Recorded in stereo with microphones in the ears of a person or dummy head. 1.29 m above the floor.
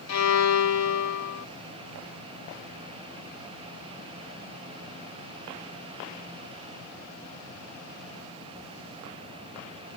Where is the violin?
80° left.